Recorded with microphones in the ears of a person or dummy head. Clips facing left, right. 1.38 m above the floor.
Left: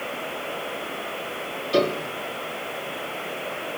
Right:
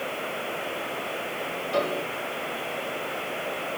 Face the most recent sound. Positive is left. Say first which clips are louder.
# left 5 dB
turn(degrees=45)  # may be behind; listen again after turning